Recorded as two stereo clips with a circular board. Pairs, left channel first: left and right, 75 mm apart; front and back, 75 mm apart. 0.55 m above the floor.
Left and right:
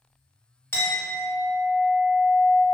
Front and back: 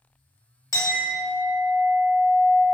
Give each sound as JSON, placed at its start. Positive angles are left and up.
{"t": 0.7, "sound": "a clink", "azimuth_deg": 35, "distance_m": 0.6}